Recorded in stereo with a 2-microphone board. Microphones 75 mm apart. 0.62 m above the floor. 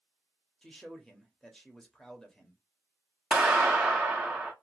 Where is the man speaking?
10° left (ahead or behind), 0.9 m.